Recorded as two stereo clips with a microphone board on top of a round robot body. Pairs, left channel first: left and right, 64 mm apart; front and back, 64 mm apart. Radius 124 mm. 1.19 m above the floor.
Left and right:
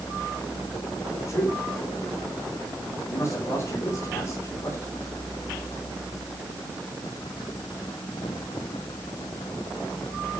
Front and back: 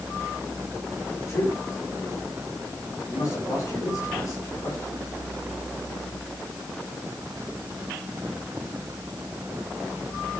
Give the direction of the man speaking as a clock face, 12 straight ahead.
10 o'clock.